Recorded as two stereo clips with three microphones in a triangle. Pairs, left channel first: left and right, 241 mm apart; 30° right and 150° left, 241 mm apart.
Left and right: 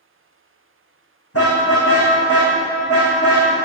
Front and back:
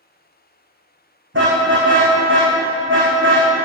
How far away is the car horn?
About 5.5 m.